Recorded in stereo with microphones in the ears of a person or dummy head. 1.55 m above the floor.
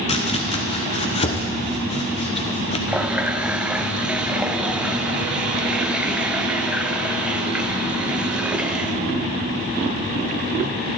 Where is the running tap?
5° right (ahead or behind), 0.6 m.